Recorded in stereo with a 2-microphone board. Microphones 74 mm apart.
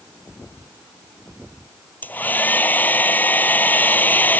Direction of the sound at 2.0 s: 25° left (ahead or behind).